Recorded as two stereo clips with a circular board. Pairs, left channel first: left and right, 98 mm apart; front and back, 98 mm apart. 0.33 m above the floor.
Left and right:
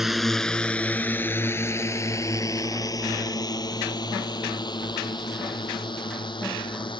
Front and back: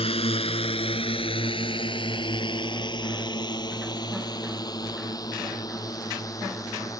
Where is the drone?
Straight ahead; by 7.0 s 55° left.